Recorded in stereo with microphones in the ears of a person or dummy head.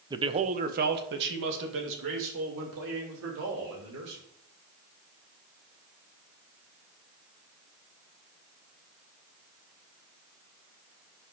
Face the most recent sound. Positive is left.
turn(degrees=-80)